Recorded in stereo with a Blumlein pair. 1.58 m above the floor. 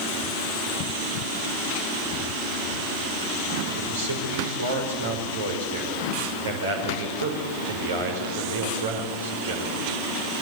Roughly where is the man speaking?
Right.